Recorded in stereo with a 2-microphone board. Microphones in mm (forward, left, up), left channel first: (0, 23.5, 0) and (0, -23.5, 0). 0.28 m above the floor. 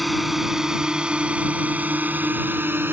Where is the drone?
Centre (ahead or behind); by 2.9 s 50° right (ahead or behind).